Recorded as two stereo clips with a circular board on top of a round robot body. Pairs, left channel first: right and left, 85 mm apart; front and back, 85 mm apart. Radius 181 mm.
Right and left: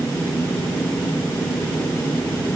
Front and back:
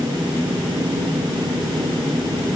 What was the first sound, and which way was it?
Only background noise.